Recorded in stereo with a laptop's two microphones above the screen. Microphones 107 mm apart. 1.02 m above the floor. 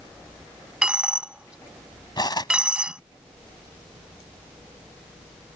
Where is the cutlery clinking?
40° left (ahead or behind).